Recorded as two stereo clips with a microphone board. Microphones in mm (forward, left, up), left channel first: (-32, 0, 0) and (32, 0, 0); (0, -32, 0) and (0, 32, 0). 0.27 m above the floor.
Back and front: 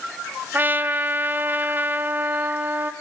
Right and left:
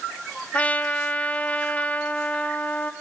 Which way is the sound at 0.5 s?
35° right.